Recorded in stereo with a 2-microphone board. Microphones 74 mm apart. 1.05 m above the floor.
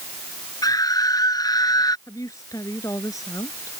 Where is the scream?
55° left (ahead or behind).